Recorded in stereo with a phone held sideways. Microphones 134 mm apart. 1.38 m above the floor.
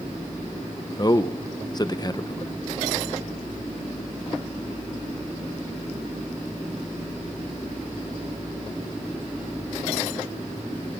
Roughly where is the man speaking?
Left.